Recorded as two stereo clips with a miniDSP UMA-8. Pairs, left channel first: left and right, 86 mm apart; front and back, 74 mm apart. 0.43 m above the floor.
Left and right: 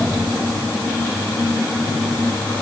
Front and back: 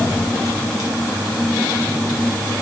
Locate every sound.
Only background noise.